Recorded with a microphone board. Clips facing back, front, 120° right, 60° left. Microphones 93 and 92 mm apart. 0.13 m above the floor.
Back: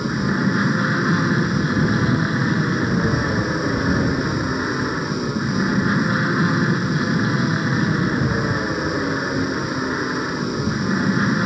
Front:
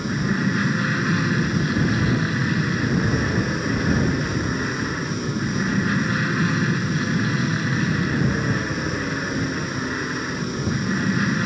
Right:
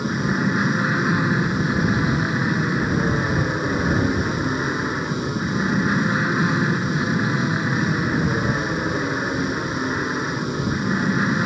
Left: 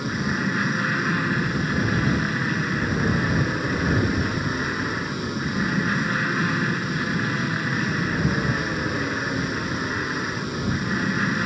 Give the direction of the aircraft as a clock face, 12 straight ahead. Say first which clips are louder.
Back 2 dB, right 3 dB; 6 o'clock.